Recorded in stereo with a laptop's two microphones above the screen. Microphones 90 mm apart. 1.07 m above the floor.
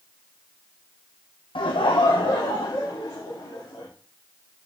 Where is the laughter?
75° left (ahead or behind), 0.5 m; by 3.9 s 85° left, 2 m.